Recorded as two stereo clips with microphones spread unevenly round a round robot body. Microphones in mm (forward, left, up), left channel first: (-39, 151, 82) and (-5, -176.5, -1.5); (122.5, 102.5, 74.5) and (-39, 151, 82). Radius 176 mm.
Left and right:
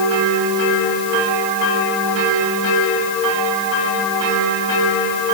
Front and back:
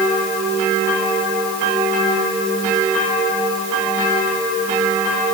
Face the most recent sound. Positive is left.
No sound to turn to.